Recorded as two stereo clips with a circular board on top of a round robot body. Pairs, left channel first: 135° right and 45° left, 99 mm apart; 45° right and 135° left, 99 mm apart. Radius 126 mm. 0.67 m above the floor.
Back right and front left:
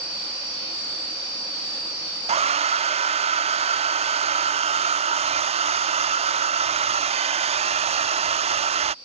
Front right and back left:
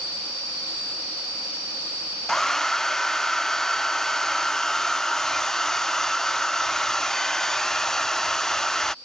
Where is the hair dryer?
40° left.